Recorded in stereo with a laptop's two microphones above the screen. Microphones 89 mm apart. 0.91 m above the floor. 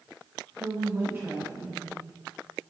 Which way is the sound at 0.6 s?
50° right (ahead or behind).